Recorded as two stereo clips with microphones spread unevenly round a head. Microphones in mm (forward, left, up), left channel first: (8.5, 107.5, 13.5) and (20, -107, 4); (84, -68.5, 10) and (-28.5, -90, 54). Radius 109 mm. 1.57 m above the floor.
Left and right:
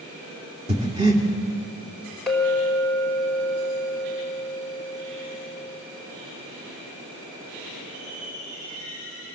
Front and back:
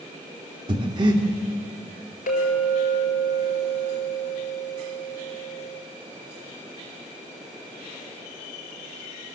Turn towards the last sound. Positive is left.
turn(degrees=5)